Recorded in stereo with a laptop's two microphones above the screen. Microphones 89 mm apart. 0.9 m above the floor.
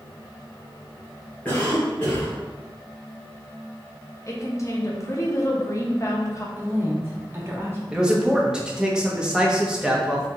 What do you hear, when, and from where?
1.4 s a cough: 15° left (ahead or behind), 0.8 m
4.3 s a woman speaking: 35° left (ahead or behind), 0.7 m
6.6 s a woman speaking: 30° right (ahead or behind), 1.3 m
7.9 s a man speaking: 10° right (ahead or behind), 0.9 m